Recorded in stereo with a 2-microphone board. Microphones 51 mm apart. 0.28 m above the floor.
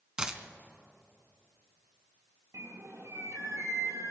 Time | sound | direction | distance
0.2 | a dropped coin | 15° right (ahead or behind) | 1.0 m
2.5 | a bird | 85° right | 1.4 m